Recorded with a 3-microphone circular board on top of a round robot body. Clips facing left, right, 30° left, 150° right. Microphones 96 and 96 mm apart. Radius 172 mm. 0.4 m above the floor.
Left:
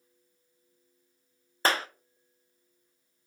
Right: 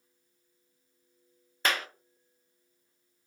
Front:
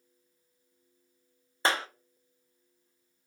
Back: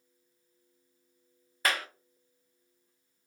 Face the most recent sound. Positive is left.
turn(degrees=70)